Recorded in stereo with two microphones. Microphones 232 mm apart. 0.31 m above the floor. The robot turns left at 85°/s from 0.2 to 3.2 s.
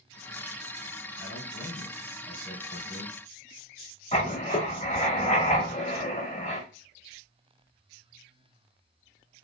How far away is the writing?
About 1.0 m.